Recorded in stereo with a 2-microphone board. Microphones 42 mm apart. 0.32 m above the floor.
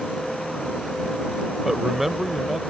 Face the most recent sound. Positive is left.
turn(degrees=-5)  # may be behind; listen again after turning